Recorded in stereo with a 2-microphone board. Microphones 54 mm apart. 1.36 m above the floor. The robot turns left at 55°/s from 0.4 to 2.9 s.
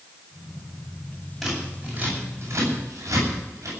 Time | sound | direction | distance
1.4 | scissors | centre (ahead or behind) | 8.5 m